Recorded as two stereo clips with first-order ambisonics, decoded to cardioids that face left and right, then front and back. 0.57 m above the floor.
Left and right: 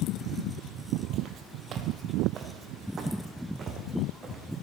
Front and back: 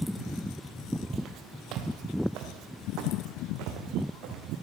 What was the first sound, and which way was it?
Footsteps, 135° right.